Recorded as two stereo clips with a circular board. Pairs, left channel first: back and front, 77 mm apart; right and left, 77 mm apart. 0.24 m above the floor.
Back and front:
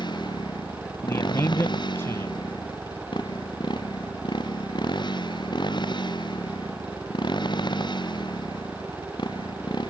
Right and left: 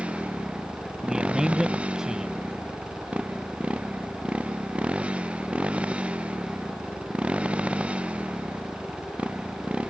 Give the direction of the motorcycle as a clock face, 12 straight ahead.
7 o'clock.